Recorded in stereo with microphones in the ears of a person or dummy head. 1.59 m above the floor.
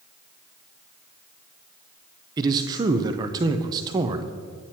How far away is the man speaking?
About 0.6 m.